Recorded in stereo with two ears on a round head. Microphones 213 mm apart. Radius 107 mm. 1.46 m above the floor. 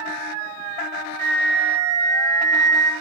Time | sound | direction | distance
1.2 | a flute | 35° right (ahead or behind) | 0.8 m